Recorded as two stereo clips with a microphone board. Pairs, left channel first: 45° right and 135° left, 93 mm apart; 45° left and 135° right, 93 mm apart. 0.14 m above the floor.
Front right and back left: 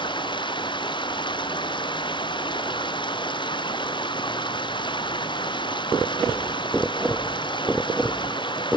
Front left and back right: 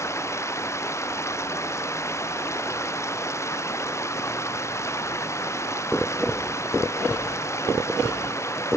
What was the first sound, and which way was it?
Running water, 15° right.